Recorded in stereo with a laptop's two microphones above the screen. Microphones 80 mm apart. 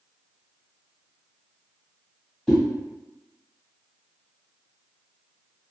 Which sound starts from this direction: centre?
A whoosh, at 2.5 s.